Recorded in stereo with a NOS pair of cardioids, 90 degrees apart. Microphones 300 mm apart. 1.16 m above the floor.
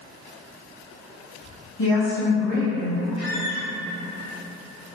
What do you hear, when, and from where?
1.8 s a woman speaking: 50° left, 1.8 m; by 3.1 s 70° left, 3 m
3.2 s a squeak: 60° left, 1.2 m